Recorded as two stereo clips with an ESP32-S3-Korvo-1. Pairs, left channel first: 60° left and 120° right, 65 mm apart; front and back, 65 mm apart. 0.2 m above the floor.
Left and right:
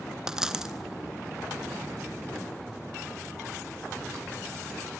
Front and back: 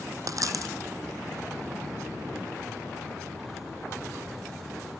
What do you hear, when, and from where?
0.3 s a dropped coin: 160° left, 1.2 m